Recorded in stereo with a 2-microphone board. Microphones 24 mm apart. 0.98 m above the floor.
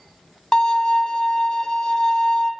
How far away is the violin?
About 0.7 m.